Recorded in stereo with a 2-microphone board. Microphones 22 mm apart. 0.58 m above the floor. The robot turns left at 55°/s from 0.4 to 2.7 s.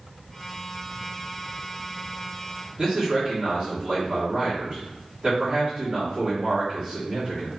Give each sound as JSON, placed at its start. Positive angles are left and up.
{"t": 2.8, "sound": "a man speaking", "side_deg": -40, "distance_m": 1.1}